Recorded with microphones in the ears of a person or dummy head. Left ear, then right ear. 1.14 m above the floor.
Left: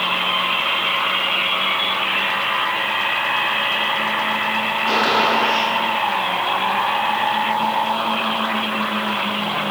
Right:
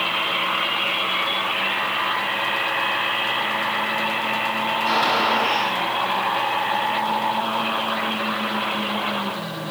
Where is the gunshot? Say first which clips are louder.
Left 2 dB; 90° right, 7 m.